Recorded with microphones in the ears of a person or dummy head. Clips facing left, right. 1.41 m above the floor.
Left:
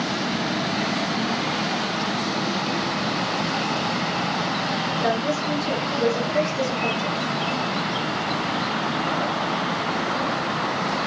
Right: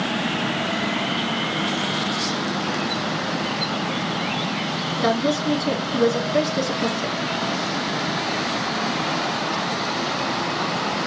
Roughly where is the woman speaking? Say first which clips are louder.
Right 4 dB; right.